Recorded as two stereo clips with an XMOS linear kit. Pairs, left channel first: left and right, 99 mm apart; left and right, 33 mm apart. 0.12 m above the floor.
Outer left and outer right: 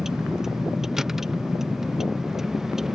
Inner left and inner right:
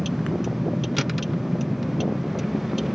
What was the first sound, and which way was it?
A vehicle, 5° right (ahead or behind).